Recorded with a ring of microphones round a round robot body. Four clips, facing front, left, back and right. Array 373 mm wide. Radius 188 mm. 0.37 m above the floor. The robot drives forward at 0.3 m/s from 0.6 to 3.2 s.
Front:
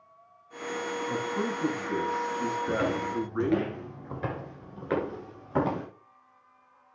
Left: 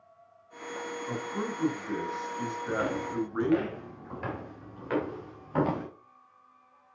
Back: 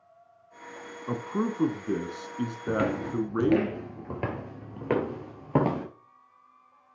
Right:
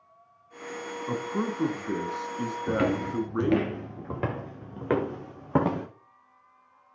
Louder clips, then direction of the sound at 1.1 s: Right 6 dB, back 4 dB; 150° right.